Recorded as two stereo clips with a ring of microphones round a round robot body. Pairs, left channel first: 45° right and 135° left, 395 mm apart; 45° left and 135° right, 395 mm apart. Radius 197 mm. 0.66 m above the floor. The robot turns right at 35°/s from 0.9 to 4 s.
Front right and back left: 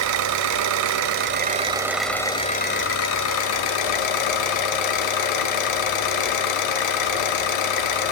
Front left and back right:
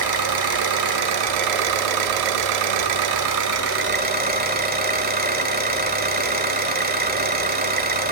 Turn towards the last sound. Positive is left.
turn(degrees=-65)